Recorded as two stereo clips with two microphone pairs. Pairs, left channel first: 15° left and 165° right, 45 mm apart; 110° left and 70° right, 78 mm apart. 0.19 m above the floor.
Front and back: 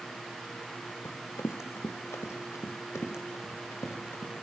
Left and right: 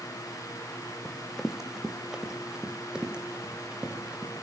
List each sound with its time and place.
1.1 s running footsteps: 20° left, 2.5 m; by 4.3 s 5° left, 6.5 m